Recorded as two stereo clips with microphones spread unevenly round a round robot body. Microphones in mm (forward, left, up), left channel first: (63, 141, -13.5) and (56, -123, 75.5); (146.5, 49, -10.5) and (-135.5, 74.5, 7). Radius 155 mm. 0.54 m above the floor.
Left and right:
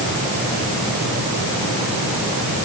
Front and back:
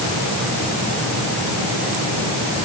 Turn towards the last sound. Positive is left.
No sound to turn to.